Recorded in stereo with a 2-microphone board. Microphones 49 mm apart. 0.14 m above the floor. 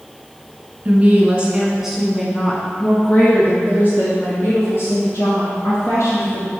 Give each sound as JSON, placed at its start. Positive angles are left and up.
{"t": 0.8, "sound": "a woman speaking", "side_deg": -30, "distance_m": 1.3}